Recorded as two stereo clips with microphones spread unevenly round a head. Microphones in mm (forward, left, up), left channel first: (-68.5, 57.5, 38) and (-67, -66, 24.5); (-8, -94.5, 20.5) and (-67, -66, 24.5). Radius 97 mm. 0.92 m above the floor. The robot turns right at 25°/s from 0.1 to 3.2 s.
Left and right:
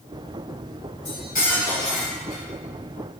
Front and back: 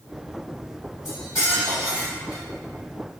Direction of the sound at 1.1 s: 35° left.